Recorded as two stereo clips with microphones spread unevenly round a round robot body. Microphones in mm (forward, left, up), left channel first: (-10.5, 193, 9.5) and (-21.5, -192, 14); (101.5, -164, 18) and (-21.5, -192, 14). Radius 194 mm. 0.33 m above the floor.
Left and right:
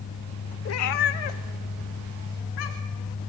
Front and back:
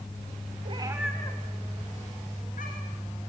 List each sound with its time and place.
0.7 s a cat meowing: 145° left, 1.1 m; by 3.1 s 55° left, 3.5 m